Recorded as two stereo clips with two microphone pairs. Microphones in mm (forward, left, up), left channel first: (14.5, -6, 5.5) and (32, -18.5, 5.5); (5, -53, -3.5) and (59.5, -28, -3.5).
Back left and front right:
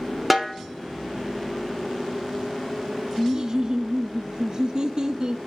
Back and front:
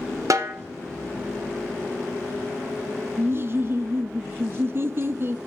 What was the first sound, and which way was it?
A snare drum, 50° left.